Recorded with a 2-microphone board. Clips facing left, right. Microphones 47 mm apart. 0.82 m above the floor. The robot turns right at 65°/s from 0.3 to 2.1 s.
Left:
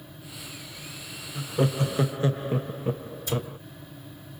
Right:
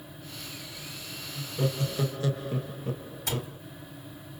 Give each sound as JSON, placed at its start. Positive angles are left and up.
{"t": 1.4, "sound": "laughter", "azimuth_deg": 85, "distance_m": 0.6}
{"t": 3.3, "sound": "a cupboard door", "side_deg": -70, "distance_m": 3.5}